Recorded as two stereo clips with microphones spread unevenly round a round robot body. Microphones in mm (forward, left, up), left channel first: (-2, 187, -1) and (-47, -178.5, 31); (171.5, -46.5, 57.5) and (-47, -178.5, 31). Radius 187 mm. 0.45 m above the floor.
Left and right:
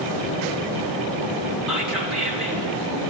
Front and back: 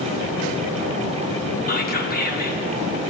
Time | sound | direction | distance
1.7 | whispering | 5° right | 1.6 m